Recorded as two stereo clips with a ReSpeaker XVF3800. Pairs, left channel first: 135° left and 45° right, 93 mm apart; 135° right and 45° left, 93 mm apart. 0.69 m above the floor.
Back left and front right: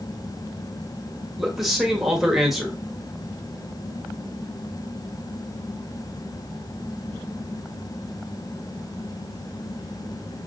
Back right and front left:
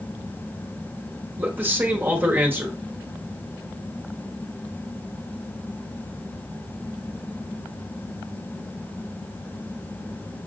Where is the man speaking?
40° left, 1.1 m.